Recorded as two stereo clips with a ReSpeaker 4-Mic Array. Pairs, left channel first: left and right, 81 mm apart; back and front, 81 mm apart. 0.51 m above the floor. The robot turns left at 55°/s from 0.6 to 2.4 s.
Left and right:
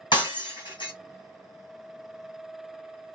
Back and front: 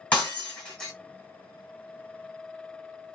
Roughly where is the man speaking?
No man speaking in this recording.